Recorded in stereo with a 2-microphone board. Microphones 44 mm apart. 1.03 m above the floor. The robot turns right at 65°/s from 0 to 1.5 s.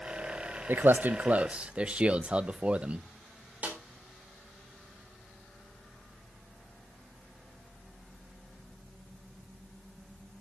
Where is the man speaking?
50° right (ahead or behind), 0.7 m; by 3.0 s 25° right (ahead or behind), 0.7 m.